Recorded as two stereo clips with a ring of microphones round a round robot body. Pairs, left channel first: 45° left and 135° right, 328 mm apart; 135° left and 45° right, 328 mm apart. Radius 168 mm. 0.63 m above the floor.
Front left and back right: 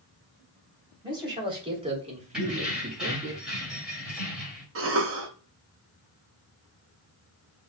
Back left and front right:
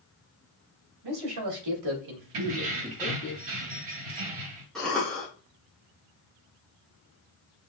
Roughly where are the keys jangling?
Ahead right.